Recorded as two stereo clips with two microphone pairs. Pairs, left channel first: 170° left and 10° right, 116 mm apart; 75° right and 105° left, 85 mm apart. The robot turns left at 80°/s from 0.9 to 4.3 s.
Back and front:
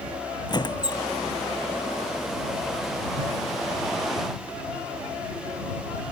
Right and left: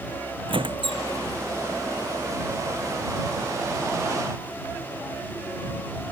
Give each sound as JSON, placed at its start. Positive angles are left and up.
{"t": 0.5, "sound": "a squeak", "azimuth_deg": 120}